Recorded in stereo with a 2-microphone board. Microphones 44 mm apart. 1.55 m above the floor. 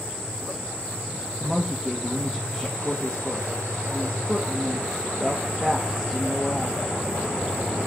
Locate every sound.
1.4 s a woman speaking: 10° left (ahead or behind), 1.3 m